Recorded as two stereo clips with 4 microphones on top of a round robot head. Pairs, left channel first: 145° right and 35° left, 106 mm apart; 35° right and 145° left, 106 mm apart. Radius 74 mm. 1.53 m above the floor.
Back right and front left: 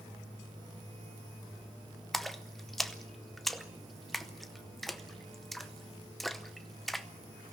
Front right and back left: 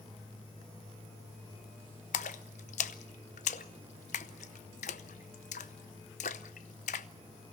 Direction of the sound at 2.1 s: 55° right.